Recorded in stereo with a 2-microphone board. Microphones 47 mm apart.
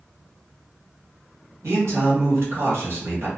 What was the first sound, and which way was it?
A man speaking, 65° right (ahead or behind).